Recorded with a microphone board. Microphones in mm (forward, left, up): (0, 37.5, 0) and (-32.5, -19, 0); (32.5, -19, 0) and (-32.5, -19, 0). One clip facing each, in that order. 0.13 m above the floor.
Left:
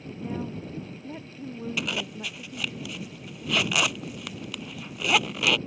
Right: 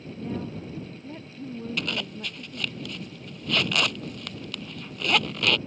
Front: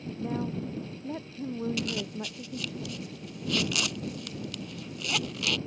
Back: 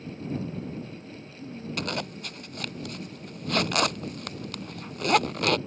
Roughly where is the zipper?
Behind left.